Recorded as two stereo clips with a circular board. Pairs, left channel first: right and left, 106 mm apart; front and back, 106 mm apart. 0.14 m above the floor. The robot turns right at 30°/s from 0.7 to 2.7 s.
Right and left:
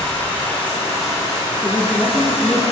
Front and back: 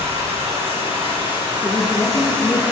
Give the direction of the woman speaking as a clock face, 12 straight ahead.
1 o'clock.